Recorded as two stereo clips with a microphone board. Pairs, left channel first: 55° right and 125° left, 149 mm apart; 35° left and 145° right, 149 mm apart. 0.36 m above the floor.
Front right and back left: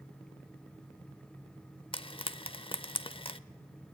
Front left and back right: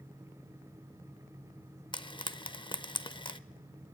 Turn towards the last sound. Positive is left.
turn(degrees=-15)